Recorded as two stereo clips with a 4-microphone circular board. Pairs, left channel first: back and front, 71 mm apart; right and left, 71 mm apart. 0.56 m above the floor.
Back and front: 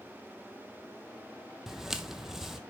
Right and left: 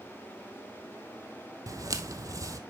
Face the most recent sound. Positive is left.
turn(degrees=85)